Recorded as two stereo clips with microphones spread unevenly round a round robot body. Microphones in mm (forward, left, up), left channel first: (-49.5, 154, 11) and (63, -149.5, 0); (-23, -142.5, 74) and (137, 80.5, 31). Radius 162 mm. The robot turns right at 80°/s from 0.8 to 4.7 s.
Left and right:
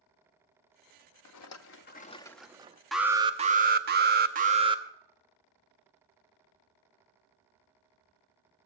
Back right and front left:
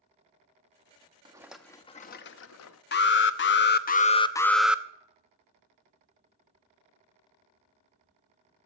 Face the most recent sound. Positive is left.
turn(degrees=-15)